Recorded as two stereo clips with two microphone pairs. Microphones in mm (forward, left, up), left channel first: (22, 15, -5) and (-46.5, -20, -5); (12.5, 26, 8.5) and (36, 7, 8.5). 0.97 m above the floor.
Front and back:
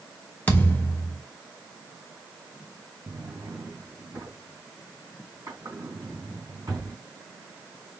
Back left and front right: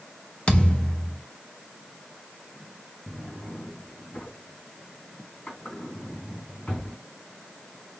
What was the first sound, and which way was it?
A thud, 95° left.